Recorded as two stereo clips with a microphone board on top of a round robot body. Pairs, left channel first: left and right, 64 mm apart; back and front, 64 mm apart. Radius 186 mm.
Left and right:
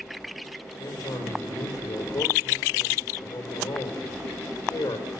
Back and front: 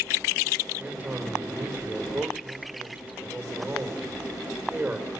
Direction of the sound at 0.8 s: 70° left.